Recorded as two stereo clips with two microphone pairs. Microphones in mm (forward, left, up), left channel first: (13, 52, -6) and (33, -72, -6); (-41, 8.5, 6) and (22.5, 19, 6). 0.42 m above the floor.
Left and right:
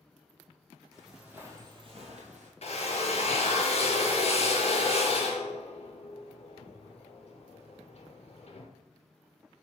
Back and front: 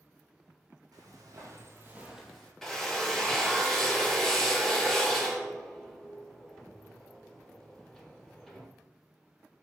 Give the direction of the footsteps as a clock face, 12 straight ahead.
12 o'clock.